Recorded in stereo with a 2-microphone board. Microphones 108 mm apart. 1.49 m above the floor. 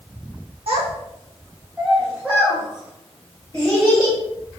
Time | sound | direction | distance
0.7 | a child speaking | 65° right (ahead or behind) | 0.9 m